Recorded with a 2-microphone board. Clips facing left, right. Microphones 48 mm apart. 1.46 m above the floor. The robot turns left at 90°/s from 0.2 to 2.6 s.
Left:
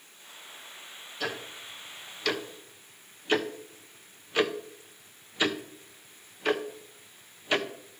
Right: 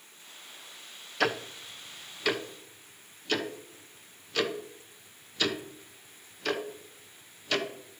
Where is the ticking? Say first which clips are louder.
Right 6 dB; 75° right (ahead or behind), 0.8 m; by 8.0 s 20° left (ahead or behind), 0.8 m.